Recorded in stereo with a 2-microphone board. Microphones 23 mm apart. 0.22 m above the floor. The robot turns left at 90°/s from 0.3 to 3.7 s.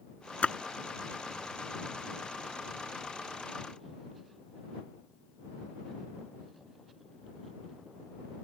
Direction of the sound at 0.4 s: 70° left (ahead or behind).